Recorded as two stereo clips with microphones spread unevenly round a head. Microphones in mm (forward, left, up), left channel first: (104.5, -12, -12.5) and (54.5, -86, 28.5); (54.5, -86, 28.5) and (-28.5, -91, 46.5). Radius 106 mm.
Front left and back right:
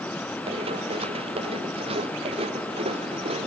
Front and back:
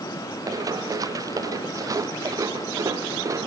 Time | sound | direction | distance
0.5 | running footsteps | 135° right | ?